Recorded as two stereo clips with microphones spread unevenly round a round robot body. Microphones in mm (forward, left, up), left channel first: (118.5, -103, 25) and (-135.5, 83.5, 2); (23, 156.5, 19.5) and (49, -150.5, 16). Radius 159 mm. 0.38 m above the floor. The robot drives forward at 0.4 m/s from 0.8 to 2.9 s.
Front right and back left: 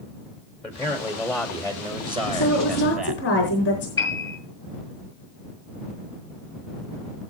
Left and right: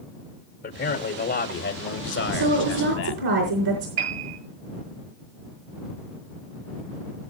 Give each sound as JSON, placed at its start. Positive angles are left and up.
{"t": 0.6, "sound": "a man speaking", "azimuth_deg": 55, "distance_m": 1.6}
{"t": 2.3, "sound": "a woman speaking", "azimuth_deg": -90, "distance_m": 4.0}
{"t": 4.0, "sound": "a piano", "azimuth_deg": -110, "distance_m": 9.0}